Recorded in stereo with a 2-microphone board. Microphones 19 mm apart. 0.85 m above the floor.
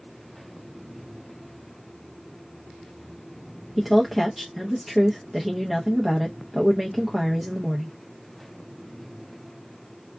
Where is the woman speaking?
Centre (ahead or behind), 0.7 m.